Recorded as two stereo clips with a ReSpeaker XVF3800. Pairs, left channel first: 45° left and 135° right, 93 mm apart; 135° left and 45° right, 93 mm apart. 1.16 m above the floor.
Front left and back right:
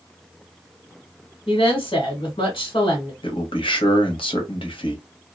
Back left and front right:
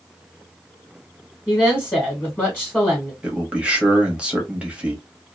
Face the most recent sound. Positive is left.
turn(degrees=35)